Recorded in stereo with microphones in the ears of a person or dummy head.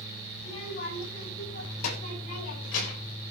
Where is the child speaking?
35° left (ahead or behind), 9 m; by 3.1 s 50° left (ahead or behind), 11.5 m.